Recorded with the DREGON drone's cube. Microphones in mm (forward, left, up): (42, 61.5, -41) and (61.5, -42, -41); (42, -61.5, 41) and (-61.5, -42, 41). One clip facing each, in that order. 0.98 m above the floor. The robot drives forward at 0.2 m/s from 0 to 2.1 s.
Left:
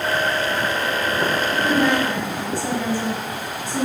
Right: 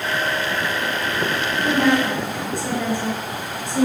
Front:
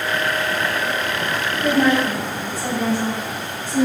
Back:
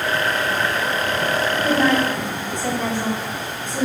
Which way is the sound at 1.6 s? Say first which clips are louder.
Right 2 dB, front 2 dB; 90° right.